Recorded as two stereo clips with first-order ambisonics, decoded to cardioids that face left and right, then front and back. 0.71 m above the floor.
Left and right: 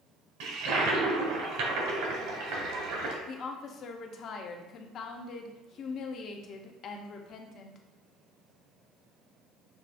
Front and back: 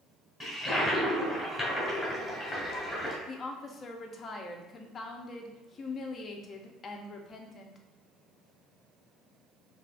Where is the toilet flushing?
90° right, 1.3 m.